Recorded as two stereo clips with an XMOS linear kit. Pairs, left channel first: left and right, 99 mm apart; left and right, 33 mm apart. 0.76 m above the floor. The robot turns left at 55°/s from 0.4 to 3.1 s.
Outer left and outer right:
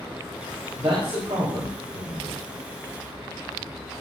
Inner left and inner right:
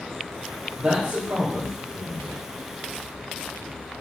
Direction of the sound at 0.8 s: 70° right.